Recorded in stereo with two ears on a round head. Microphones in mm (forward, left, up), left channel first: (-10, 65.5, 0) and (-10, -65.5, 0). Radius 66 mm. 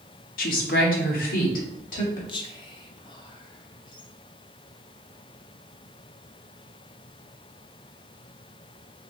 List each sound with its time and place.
0.4 s a woman speaking: 70° left (ahead or behind), 0.8 m; by 2.2 s 65° left (ahead or behind), 1.7 m
2.3 s whispering: 35° left (ahead or behind), 0.5 m